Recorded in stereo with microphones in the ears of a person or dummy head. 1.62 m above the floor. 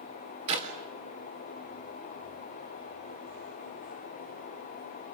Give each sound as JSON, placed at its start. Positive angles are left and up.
{"t": 0.5, "sound": "a clap", "side_deg": -30, "distance_m": 3.0}